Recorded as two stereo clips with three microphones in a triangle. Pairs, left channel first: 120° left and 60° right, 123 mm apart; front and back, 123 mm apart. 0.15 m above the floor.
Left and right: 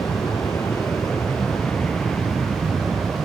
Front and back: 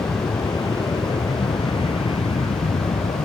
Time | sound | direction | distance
0.0 | an aircraft | 55° left | ?